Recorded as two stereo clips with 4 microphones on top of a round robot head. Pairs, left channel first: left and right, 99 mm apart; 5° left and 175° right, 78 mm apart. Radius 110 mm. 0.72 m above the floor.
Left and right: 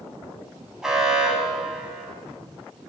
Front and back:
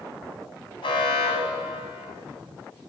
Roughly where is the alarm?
Ahead.